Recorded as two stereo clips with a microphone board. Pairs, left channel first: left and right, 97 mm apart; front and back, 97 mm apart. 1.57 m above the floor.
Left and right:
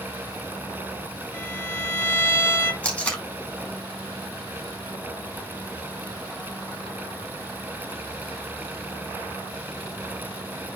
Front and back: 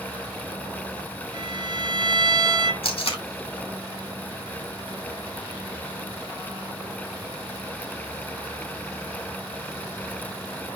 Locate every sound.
1.3 s a violin: 145° left, 1.5 m
2.8 s tape being pulled: 15° left, 3 m